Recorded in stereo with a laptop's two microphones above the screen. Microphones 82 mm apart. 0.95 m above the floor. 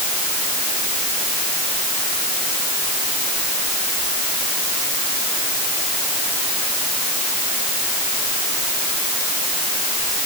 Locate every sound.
Only background noise.